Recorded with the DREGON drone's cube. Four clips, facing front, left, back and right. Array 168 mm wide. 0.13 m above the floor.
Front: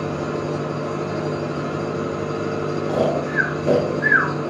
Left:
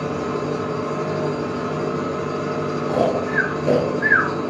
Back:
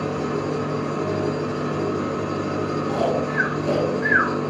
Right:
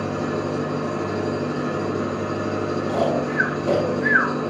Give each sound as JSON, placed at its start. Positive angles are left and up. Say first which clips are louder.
{"t": 0.0, "sound": "an engine running", "louder": "left 1 dB, even", "azimuth_deg": 90, "distance_m": 4.0}
{"t": 2.9, "sound": "snoring", "louder": "left 3 dB, front 2 dB", "azimuth_deg": 60, "distance_m": 1.3}